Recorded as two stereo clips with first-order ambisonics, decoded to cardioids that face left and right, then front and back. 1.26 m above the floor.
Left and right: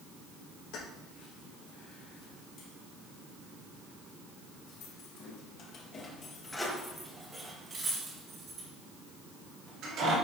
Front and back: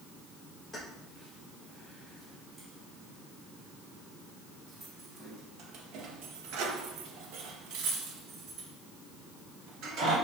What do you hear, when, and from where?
0.7 s keys jangling: 90° left, 3.5 m; by 10.2 s 135° right, 2.5 m